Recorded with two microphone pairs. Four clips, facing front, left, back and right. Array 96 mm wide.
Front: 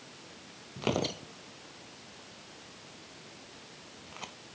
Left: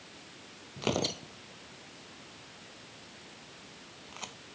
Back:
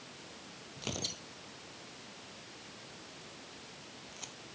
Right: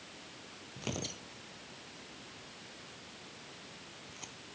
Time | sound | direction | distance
0.8 | tearing paper | 40° left | ?